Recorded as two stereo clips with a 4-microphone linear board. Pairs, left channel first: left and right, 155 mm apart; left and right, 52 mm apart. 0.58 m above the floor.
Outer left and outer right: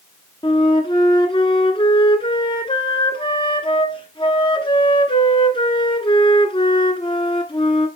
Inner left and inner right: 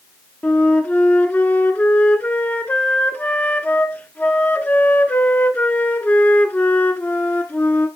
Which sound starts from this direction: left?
A flute, at 0.4 s.